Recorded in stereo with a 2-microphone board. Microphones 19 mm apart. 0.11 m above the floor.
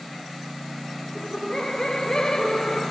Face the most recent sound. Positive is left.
turn(degrees=35)  # may be behind; listen again after turning